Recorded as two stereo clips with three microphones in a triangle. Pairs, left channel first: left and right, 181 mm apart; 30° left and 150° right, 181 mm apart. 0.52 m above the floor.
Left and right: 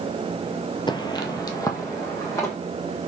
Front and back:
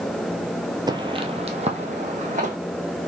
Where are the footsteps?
150° left, 0.7 m; by 2.5 s 165° left, 2.0 m.